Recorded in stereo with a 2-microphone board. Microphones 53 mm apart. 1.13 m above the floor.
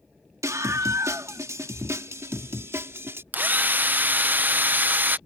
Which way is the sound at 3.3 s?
35° right (ahead or behind).